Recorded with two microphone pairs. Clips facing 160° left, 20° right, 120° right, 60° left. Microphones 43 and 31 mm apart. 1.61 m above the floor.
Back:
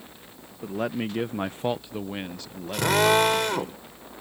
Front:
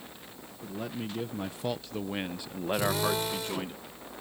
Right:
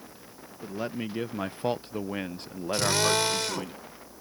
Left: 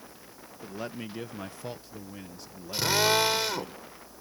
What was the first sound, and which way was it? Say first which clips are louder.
A man speaking: back 8 dB, right 4 dB; 155° left.